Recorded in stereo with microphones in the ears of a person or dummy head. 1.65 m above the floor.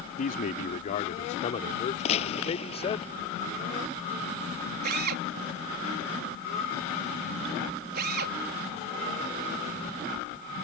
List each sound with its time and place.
0.2 s a man speaking: 45° left (ahead or behind); by 3.0 s 25° left (ahead or behind)
2.0 s a gunshot: 40° left (ahead or behind)
4.8 s a drill: 55° right (ahead or behind)